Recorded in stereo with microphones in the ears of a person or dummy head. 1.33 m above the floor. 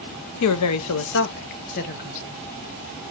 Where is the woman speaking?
75° left (ahead or behind), 0.6 m; by 2.4 s 40° left (ahead or behind), 1.2 m.